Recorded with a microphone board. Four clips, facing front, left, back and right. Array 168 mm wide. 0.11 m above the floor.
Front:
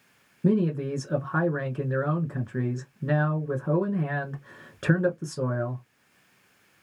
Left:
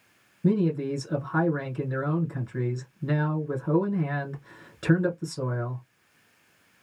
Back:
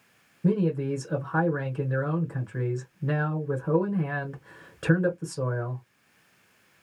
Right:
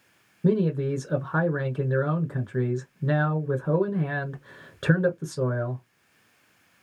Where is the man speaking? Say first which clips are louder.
Right 1 dB, front 1 dB; 70° right, 1.1 m.